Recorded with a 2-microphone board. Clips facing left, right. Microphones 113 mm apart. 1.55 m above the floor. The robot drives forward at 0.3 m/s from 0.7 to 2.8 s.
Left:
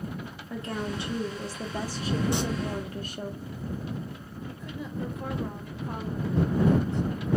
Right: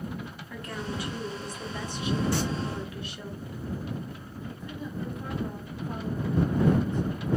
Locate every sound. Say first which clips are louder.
0.5 s a woman speaking: left 4 dB; 25° left (ahead or behind), 1.0 m; by 3.3 s 45° left (ahead or behind), 0.6 m
2.3 s singing: even; 20° left (ahead or behind), 0.7 m
4.5 s a woman speaking: even; 70° left (ahead or behind), 1.0 m